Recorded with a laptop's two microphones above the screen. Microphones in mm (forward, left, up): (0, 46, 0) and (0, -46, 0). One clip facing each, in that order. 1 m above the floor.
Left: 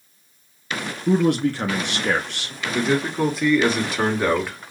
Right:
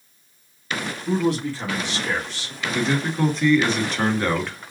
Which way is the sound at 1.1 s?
60° left (ahead or behind).